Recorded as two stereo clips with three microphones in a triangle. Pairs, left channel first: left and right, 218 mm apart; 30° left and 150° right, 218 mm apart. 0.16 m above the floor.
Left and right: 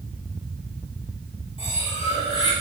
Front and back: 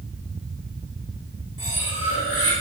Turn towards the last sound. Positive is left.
turn(degrees=25)